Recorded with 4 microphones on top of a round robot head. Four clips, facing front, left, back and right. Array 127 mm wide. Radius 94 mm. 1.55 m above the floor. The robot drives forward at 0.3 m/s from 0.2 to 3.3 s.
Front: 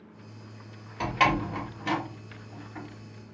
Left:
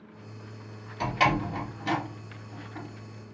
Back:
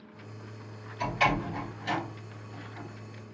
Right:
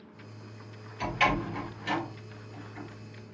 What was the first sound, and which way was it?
A door slam, 20° left.